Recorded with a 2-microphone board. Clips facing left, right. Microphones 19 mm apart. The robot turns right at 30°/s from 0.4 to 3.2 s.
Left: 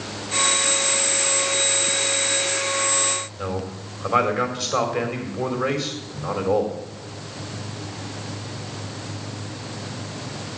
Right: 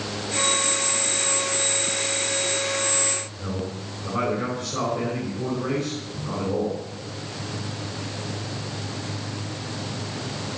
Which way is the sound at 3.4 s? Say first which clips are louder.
Left 2 dB; 80° left.